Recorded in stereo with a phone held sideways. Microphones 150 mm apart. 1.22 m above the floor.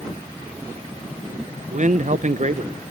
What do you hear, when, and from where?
1.7 s a man speaking: 55° right (ahead or behind), 0.7 m